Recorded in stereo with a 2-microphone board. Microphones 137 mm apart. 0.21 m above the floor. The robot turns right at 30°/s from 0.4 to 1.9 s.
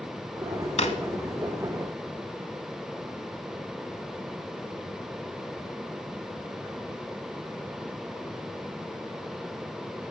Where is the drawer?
55° left (ahead or behind), 0.7 m.